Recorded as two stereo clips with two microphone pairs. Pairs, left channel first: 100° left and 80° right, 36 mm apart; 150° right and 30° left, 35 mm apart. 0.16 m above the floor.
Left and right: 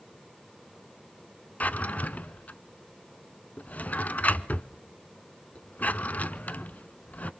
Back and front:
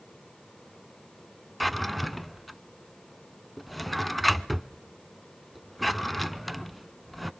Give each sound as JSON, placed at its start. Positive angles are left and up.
{"t": 1.6, "sound": "a drawer", "azimuth_deg": 115, "distance_m": 0.7}